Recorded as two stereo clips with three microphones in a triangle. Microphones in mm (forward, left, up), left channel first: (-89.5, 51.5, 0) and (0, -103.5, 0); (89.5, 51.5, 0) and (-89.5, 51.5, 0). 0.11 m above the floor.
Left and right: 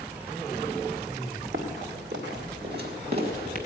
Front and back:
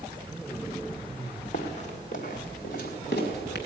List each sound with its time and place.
1.5 s running footsteps: 55° right, 3 m; by 3.6 s 25° right, 3.5 m